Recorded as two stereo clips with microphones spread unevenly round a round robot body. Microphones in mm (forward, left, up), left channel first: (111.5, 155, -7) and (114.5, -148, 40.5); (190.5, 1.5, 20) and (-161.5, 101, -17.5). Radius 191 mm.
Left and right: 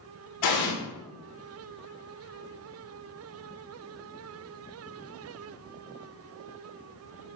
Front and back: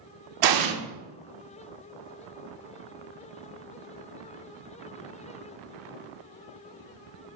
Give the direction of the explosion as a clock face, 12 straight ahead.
8 o'clock.